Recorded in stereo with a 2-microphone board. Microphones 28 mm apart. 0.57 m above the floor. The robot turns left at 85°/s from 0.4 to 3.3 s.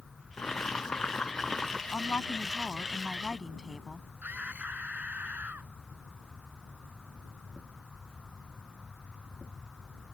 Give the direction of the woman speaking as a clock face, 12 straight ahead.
8 o'clock.